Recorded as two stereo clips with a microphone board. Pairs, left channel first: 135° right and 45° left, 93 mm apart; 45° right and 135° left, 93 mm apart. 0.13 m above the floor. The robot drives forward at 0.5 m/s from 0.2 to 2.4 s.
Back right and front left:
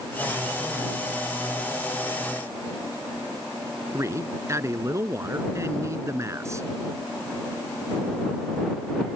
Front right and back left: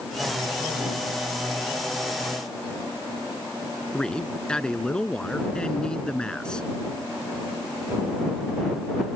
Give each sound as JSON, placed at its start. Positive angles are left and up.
{"t": 3.9, "sound": "a man speaking", "azimuth_deg": 30}